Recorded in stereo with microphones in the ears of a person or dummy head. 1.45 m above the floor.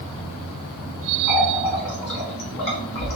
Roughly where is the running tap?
Left.